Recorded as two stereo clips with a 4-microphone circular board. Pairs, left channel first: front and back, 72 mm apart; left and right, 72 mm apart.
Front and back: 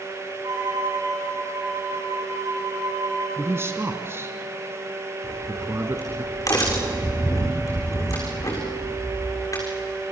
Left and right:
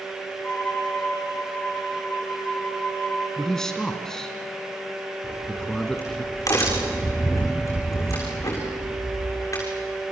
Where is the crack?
45° left, 7 m.